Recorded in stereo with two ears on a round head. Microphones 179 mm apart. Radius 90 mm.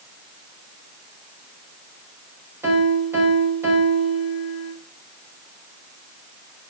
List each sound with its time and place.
2.6 s a piano: 15° right (ahead or behind), 6.5 m